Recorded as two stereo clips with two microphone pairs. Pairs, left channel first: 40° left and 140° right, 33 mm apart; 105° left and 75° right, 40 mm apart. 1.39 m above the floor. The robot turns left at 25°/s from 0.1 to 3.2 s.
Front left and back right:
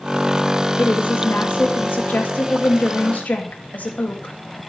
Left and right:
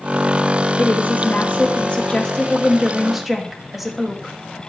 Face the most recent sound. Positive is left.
turn(degrees=15)